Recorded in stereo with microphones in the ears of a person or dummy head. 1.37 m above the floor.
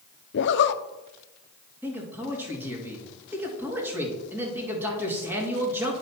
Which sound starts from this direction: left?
A zipper, at 0.3 s.